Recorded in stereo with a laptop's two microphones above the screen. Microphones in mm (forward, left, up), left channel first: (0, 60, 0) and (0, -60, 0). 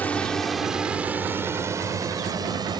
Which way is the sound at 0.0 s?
15° left (ahead or behind).